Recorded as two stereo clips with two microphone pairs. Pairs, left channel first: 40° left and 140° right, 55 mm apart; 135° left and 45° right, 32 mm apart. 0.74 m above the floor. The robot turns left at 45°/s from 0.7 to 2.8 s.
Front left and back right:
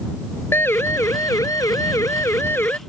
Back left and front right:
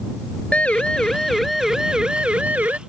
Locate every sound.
0.5 s a siren: 85° left; by 2.8 s 15° right